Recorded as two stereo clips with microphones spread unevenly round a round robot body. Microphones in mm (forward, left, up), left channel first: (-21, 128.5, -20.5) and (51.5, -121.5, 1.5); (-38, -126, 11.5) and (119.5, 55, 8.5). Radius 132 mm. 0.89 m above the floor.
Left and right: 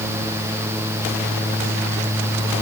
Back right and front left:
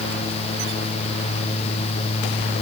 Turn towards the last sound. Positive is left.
No sound to turn to.